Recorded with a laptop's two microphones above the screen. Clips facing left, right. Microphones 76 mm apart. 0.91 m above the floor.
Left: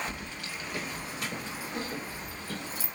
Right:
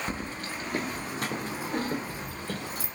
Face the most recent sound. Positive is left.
turn(degrees=-50)  # may be behind; listen again after turning